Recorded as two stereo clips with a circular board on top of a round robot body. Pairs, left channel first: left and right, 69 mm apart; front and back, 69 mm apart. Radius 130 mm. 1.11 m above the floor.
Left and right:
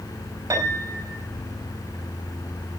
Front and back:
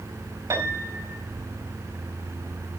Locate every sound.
0.5 s a piano: 135° right, 5.5 m